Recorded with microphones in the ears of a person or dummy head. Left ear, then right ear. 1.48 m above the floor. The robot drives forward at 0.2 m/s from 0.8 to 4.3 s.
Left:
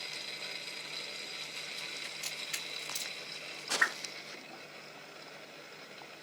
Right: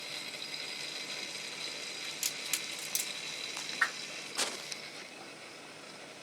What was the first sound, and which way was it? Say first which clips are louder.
A crack: right 3 dB; 45° right (ahead or behind).